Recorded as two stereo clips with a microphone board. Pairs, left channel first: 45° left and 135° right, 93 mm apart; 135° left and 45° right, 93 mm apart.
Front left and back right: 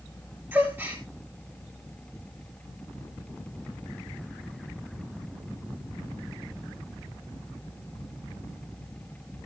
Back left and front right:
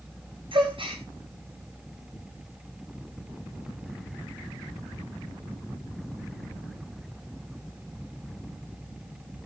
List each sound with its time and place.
0.5 s a gasp: 70° right, 4 m